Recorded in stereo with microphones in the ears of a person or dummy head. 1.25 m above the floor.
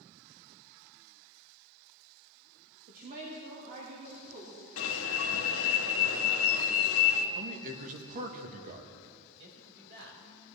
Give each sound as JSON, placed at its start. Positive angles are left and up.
{"t": 2.9, "sound": "a woman speaking", "side_deg": -50, "distance_m": 1.4}
{"t": 4.8, "sound": "an alarm", "side_deg": 60, "distance_m": 1.1}
{"t": 7.3, "sound": "a man speaking", "side_deg": -45, "distance_m": 1.3}
{"t": 9.4, "sound": "a man speaking", "side_deg": -65, "distance_m": 5.0}